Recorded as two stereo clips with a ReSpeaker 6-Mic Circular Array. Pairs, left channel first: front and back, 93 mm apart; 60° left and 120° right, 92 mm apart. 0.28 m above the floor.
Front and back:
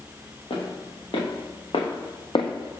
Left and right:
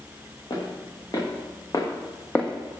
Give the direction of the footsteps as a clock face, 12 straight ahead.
11 o'clock.